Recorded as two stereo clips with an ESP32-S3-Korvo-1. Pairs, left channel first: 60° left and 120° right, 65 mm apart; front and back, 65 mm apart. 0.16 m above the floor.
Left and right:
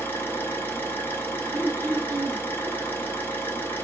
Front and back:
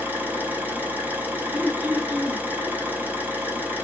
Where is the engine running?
120° left, 0.8 m.